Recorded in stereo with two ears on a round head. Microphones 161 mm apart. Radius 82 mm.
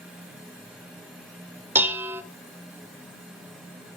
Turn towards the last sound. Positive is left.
turn(degrees=-10)  # may be behind; listen again after turning